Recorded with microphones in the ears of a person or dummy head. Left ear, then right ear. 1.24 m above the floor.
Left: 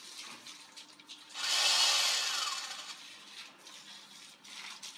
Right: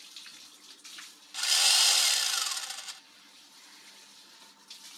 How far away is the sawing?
About 0.8 m.